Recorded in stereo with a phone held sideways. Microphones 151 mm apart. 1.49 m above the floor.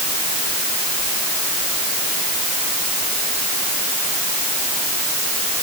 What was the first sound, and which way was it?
Only background noise.